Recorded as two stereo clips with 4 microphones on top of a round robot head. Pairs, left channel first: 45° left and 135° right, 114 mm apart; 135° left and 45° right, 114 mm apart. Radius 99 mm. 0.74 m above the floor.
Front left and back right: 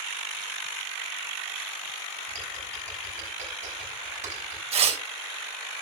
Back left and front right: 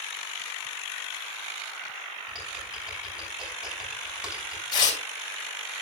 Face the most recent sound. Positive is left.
turn(degrees=-170)